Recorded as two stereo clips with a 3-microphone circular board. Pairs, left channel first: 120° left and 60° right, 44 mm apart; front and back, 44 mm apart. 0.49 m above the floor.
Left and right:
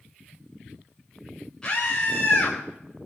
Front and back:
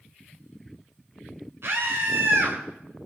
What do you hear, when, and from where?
1.6 s a scream: 170° right, 2.5 m